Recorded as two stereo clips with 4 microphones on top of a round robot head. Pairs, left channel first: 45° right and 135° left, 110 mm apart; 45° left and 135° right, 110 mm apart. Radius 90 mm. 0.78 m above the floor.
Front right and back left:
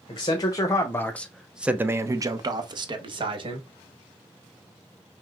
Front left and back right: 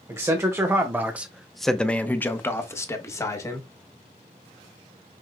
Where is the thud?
No thud in this recording.